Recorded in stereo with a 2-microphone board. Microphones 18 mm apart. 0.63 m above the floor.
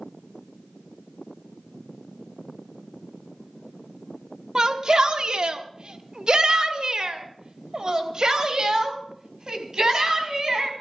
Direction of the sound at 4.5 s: 40° right (ahead or behind).